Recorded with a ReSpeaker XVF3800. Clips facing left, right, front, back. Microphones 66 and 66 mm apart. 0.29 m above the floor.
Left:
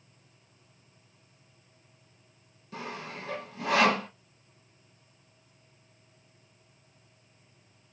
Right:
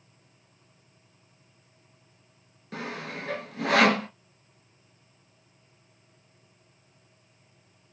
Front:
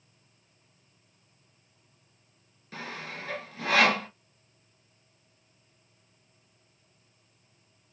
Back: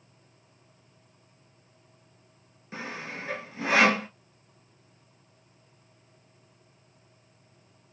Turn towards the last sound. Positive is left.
turn(degrees=-110)